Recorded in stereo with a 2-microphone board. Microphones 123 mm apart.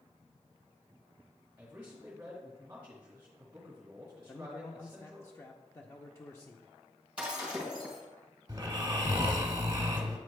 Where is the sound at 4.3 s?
25° left (ahead or behind), 0.5 m.